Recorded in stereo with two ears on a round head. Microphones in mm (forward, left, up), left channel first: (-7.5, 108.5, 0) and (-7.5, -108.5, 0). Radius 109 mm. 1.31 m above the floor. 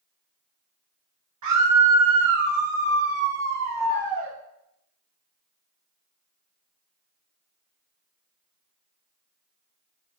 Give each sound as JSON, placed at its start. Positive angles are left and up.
{"t": 1.4, "sound": "a scream", "side_deg": -85, "distance_m": 3.5}